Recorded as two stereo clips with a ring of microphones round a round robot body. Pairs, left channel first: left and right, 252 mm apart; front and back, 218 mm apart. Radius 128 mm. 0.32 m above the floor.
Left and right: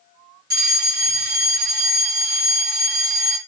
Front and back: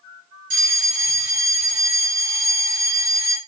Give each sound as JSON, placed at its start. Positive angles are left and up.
{"t": 0.5, "sound": "a fire alarm", "azimuth_deg": -130, "distance_m": 3.0}